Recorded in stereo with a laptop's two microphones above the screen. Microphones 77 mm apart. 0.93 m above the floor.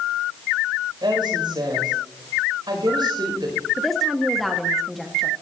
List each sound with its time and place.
1.0 s a woman speaking: 80° right, 5 m
3.8 s a woman speaking: centre (ahead or behind), 1.3 m